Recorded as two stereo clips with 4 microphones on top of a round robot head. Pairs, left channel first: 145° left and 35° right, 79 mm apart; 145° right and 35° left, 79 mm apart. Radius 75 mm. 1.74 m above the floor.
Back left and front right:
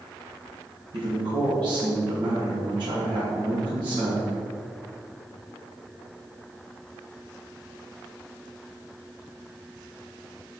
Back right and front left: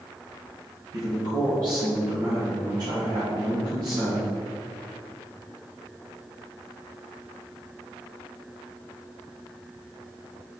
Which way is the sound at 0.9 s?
5° right.